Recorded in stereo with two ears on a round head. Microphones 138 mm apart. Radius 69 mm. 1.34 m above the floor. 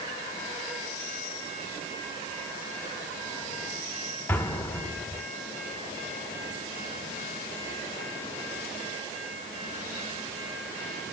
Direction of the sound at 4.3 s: 15° left (ahead or behind).